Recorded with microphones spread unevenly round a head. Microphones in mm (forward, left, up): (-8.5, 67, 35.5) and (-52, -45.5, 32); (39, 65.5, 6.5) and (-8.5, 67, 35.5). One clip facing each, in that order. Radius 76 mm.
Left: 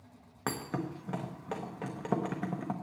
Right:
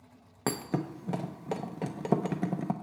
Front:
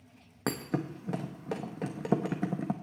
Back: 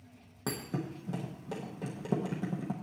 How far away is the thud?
About 0.7 m.